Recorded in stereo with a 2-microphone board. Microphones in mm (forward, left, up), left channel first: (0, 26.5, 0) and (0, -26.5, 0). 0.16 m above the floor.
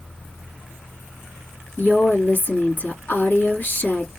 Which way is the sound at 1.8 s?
40° left (ahead or behind).